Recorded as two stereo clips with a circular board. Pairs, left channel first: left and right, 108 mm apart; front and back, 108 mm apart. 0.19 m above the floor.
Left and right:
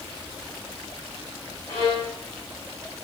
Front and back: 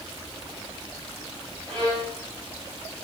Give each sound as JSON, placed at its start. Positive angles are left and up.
{"t": 1.7, "sound": "a violin", "azimuth_deg": 135, "distance_m": 8.5}